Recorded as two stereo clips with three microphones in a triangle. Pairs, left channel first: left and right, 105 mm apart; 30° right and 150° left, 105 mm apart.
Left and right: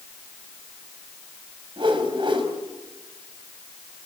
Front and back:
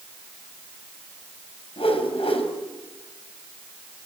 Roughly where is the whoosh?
Ahead right.